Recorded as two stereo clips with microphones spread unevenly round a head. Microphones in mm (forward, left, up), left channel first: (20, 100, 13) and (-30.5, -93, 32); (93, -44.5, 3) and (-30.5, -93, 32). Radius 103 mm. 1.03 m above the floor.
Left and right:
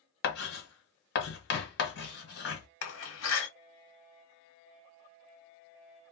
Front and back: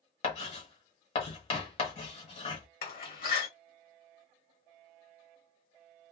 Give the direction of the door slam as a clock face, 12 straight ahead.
10 o'clock.